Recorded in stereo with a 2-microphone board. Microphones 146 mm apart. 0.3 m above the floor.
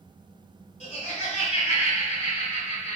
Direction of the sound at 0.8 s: 50° left (ahead or behind).